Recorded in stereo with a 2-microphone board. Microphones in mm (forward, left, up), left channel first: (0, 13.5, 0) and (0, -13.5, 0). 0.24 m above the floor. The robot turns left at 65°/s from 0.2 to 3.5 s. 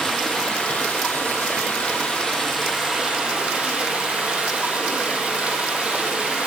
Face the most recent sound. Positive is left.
turn(degrees=-55)